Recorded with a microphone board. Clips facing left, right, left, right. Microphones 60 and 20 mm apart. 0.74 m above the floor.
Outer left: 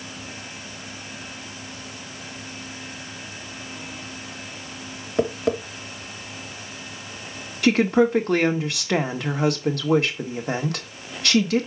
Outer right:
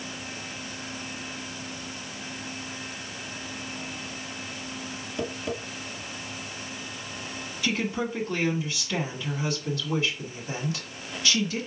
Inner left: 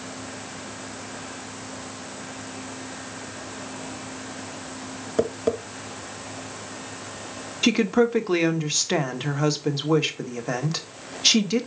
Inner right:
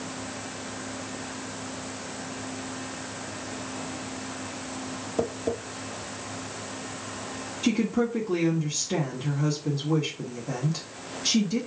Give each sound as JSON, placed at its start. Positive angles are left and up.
{"t": 5.2, "sound": "tapping", "side_deg": 60, "distance_m": 1.4}
{"t": 7.6, "sound": "a woman speaking", "side_deg": 65, "distance_m": 1.5}